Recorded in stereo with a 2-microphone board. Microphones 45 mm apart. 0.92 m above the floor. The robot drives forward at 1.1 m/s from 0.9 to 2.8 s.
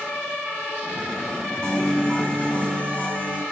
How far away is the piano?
About 5 m.